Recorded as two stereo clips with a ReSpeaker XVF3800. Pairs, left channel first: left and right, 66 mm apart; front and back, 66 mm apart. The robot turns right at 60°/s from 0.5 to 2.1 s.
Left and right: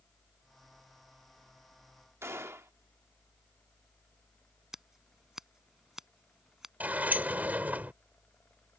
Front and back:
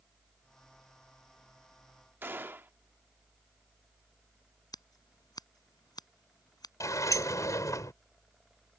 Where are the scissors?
5° right.